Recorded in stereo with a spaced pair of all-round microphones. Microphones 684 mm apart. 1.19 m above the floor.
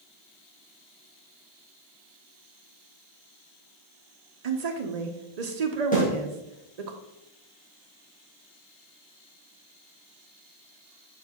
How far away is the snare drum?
About 3.5 m.